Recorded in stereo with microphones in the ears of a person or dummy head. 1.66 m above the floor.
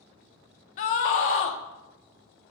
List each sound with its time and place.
0.8 s a scream: 40° left (ahead or behind), 0.7 m